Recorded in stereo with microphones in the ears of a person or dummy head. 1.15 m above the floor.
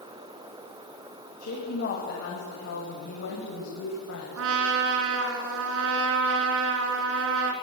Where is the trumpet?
70° right (ahead or behind), 3.5 m.